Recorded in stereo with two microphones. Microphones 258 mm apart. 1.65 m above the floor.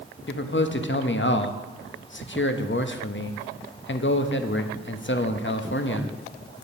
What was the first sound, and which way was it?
A man speaking, 45° left (ahead or behind).